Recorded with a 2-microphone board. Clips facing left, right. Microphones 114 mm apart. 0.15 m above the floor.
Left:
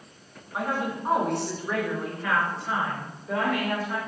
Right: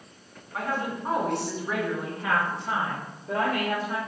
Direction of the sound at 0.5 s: 20° left (ahead or behind).